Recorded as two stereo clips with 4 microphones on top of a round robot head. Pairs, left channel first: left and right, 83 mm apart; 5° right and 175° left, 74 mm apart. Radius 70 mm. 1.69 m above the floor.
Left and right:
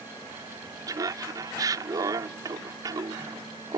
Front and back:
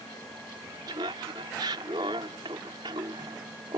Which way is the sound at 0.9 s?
135° right.